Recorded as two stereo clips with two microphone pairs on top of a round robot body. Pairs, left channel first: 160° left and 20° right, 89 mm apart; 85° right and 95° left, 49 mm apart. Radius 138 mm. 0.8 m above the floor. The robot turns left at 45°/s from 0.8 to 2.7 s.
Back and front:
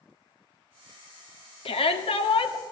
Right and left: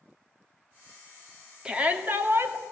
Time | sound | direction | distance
1.6 | a shout | 170° left | 2.5 m